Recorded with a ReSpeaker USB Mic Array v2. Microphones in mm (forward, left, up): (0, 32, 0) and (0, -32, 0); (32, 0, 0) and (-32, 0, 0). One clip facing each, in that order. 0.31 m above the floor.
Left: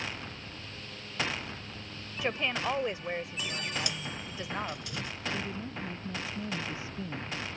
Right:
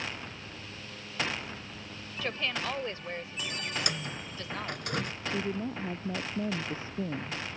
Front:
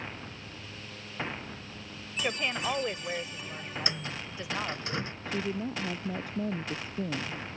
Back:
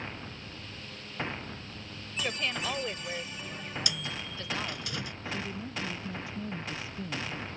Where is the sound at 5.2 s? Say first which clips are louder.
Right 3 dB, front 6 dB; 40° right.